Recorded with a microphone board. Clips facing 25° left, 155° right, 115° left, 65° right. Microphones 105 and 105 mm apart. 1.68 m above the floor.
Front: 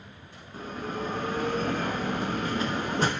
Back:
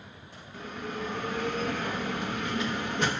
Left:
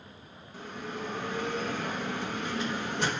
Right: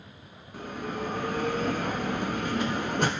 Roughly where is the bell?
Ahead right.